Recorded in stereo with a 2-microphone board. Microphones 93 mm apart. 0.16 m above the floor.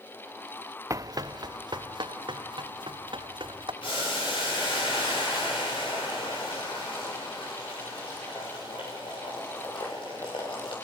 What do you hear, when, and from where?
0.9 s running footsteps: 35° right (ahead or behind), 0.8 m; by 3.7 s 70° right (ahead or behind), 4 m
3.8 s boiling: 75° left (ahead or behind), 8.5 m